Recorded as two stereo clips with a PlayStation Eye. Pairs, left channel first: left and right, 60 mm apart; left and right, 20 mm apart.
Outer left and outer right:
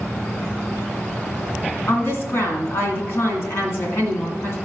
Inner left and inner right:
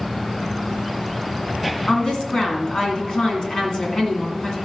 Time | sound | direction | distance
1.9 | a woman speaking | 45° left (ahead or behind) | 2 m